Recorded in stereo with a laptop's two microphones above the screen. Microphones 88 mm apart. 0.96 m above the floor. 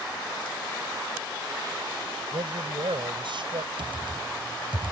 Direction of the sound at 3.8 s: 75° right (ahead or behind).